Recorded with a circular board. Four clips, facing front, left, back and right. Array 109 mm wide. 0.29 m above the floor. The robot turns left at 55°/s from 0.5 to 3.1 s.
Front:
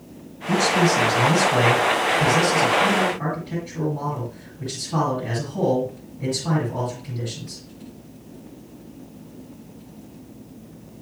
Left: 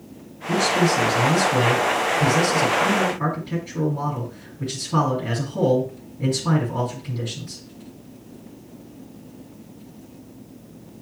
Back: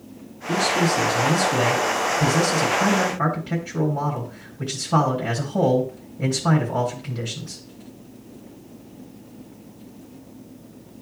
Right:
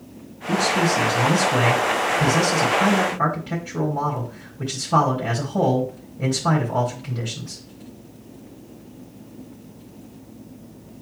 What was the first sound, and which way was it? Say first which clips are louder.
A man speaking: left 1 dB, front 2 dB; 15° left.